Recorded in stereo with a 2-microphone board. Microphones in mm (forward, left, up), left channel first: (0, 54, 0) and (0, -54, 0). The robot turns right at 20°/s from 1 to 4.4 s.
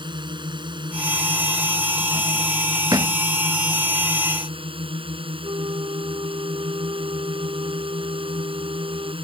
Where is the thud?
35° right (ahead or behind); by 3.2 s 40° right (ahead or behind).